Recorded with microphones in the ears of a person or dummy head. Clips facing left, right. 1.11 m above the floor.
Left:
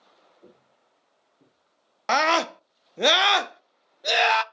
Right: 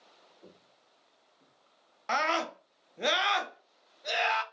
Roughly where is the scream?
Left.